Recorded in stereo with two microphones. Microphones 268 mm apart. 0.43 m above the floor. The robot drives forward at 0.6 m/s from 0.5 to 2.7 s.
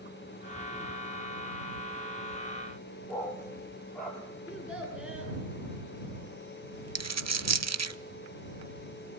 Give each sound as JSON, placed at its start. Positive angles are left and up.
{"t": 3.1, "sound": "a dog barking", "side_deg": 0, "distance_m": 5.0}
{"t": 4.5, "sound": "a child speaking", "side_deg": -5, "distance_m": 8.0}
{"t": 7.0, "sound": "a dropped coin", "side_deg": -75, "distance_m": 0.6}